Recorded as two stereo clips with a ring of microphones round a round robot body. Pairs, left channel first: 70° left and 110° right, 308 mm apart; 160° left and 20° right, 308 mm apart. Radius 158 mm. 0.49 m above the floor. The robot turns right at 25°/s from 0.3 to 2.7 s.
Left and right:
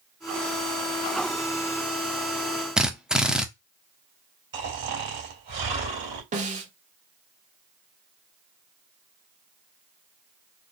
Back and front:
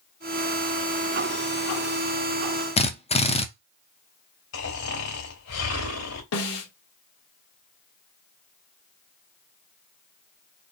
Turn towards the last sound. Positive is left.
turn(degrees=-175)